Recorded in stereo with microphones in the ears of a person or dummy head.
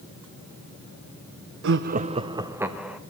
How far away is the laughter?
About 0.6 m.